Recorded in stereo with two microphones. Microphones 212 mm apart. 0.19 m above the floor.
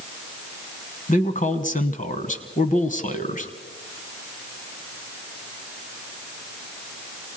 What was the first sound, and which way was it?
A man speaking, 35° left (ahead or behind).